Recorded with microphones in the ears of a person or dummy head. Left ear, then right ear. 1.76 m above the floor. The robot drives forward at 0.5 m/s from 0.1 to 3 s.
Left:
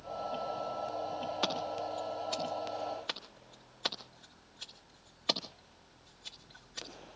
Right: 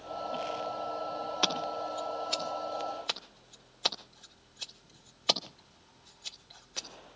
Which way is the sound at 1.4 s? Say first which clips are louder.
Right 5 dB; 10° right (ahead or behind).